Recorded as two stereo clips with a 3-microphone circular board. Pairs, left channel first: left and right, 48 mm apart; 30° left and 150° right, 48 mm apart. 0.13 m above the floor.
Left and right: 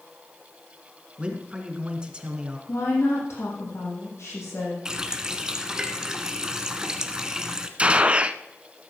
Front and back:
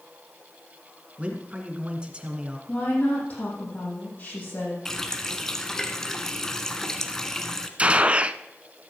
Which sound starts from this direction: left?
A woman speaking, at 2.7 s.